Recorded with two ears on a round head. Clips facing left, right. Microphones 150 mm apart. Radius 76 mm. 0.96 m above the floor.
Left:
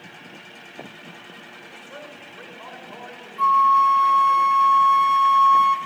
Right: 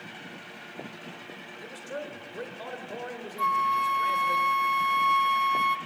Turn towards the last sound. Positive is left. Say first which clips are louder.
# left 10 dB
turn(degrees=-25)  # may be behind; listen again after turning